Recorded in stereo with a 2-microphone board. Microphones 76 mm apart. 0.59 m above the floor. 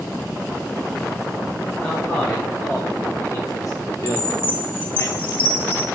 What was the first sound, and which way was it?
A man speaking, 20° left (ahead or behind).